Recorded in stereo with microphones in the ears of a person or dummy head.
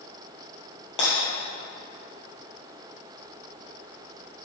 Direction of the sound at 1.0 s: 35° left (ahead or behind).